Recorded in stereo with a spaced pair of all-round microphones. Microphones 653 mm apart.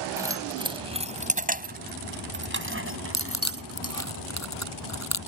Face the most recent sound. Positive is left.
turn(degrees=25)  # may be behind; listen again after turning